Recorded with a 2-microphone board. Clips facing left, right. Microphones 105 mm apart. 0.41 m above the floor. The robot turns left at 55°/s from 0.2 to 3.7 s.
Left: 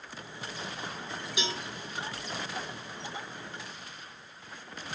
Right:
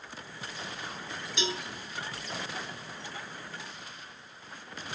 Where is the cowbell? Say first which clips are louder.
Right 2 dB; 10° left (ahead or behind), 1.7 m; by 1.6 s 5° right (ahead or behind), 1.7 m.